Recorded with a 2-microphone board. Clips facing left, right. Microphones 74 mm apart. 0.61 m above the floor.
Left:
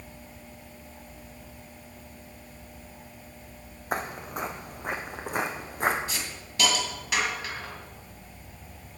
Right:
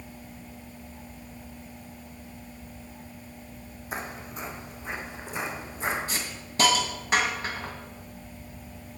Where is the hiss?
35° right (ahead or behind), 2 m.